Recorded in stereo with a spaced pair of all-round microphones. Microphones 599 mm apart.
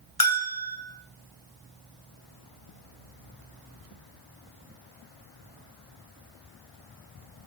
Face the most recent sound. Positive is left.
turn(degrees=65)  # may be behind; listen again after turning